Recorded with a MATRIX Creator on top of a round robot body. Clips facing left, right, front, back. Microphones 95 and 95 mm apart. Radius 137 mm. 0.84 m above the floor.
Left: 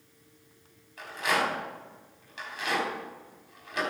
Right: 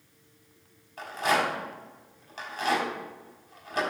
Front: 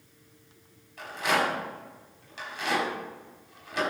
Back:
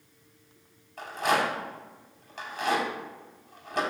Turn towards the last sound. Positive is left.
turn(degrees=-145)